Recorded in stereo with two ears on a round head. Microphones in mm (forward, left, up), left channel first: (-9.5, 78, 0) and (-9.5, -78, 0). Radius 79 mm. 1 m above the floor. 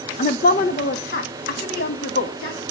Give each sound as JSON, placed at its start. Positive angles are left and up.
{"t": 0.2, "sound": "a woman speaking", "side_deg": 40, "distance_m": 0.6}